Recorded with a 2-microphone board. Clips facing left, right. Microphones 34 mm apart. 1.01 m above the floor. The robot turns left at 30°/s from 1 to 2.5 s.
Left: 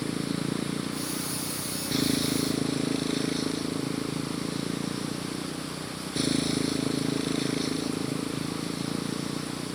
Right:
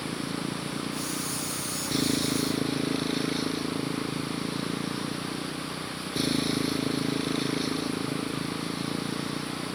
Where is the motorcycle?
35° left; by 9.8 s 10° right.